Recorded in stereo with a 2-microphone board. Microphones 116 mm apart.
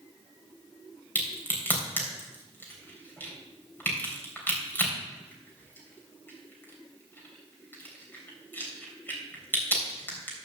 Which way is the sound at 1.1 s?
15° left (ahead or behind).